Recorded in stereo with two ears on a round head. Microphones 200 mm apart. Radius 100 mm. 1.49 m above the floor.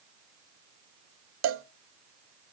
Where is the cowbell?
60° right (ahead or behind), 0.5 m.